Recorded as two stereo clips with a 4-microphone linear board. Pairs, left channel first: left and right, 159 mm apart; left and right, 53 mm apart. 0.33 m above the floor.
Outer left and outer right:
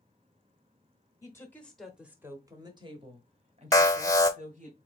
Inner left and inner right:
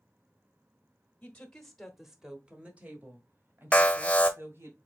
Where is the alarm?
20° left (ahead or behind), 0.8 m.